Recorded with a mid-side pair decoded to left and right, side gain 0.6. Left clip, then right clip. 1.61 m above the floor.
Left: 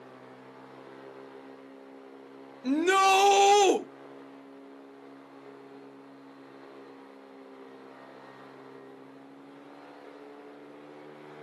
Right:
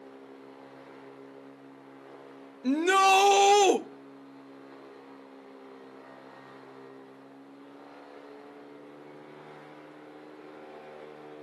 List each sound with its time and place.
2.6 s a shout: 5° right, 1.1 m